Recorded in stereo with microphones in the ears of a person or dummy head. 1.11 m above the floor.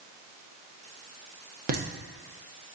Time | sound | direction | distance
1.7 | laughter | 40° right (ahead or behind) | 0.6 m